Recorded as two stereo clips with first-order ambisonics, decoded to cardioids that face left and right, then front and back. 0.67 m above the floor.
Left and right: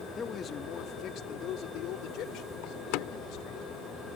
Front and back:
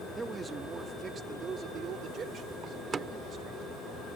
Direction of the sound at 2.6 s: 110° left.